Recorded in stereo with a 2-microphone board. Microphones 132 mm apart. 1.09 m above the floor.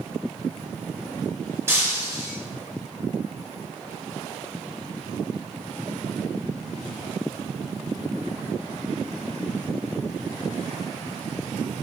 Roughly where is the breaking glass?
Right.